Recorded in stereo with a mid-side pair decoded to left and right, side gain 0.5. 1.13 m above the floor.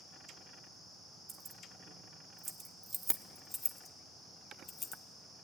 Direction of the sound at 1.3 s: 55° right.